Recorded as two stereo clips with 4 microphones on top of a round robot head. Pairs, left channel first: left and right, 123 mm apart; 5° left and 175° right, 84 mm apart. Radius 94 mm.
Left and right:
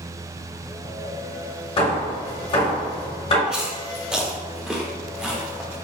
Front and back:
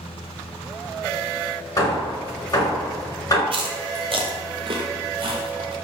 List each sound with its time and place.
1.8 s hammering: 50° left, 1.8 m
3.5 s chewing: 175° right, 0.7 m